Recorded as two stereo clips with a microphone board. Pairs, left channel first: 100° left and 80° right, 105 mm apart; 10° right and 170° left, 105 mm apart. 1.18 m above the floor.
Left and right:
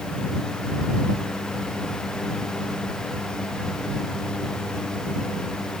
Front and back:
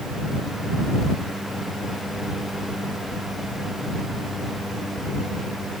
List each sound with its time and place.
Only background noise.